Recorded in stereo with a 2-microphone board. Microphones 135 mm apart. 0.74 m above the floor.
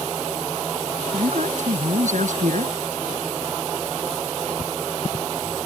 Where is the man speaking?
65° right (ahead or behind).